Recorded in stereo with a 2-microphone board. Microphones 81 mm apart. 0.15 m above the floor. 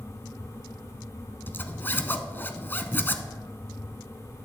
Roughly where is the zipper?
Left.